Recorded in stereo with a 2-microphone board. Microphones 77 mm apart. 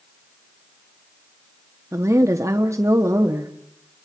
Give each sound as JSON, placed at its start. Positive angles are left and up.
{"t": 1.9, "sound": "a woman speaking", "side_deg": -40, "distance_m": 1.2}